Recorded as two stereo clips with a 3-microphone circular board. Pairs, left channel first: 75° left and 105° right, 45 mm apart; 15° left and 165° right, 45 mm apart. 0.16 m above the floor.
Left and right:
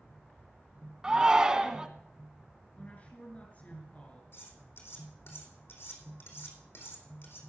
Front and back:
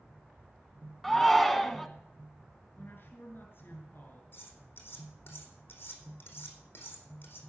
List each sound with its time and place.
1.0 s a shout: 70° right, 1.2 m
2.8 s a woman speaking: 30° left, 2.5 m
4.3 s cutlery clinking: 55° left, 4 m